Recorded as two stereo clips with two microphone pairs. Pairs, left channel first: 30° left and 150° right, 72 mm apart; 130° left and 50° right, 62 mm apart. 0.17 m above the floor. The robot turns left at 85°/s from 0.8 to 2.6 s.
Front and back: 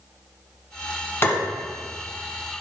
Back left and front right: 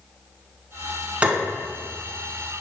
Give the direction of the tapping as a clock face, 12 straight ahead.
12 o'clock.